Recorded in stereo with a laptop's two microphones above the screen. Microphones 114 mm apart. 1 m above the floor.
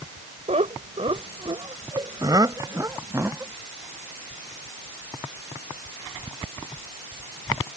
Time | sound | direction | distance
0.5 | laughter | 70° right (ahead or behind) | ?